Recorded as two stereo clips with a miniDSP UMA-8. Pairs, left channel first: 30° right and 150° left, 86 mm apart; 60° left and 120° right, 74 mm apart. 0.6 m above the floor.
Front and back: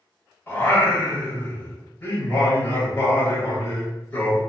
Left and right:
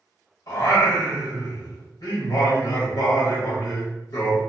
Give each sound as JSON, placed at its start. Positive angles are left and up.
{"t": 0.5, "sound": "singing", "azimuth_deg": 35, "distance_m": 1.1}